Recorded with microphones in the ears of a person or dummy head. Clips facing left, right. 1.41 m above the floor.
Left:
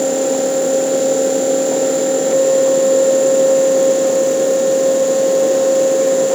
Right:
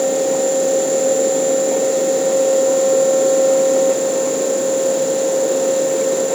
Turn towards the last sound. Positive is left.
No sound to turn to.